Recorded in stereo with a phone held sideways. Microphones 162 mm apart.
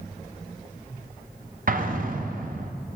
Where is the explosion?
60° right (ahead or behind), 0.8 m.